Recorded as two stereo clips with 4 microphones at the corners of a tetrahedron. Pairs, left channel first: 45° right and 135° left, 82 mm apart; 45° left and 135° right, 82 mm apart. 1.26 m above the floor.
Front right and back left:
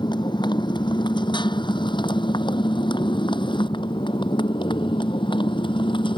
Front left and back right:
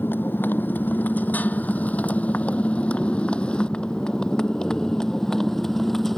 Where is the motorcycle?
20° right; by 6.2 s 45° right.